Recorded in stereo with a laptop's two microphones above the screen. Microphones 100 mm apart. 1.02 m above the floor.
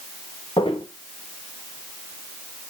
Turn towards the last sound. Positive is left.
turn(degrees=50)  # may be behind; listen again after turning